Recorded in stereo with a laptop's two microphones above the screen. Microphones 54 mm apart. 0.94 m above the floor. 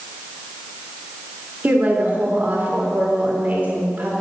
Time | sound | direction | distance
1.6 | a woman speaking | 30° right (ahead or behind) | 3 m